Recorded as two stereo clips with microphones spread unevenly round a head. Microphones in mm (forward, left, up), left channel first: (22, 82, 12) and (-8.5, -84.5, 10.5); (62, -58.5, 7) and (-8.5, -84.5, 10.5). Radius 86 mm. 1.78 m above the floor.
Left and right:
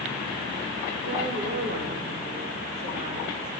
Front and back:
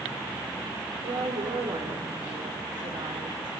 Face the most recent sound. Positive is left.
turn(degrees=-150)